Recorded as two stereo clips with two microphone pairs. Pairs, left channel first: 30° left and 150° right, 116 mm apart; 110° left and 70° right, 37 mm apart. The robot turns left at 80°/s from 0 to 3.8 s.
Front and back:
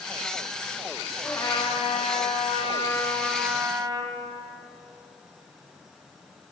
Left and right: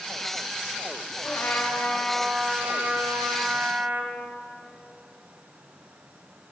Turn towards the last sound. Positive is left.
turn(degrees=-100)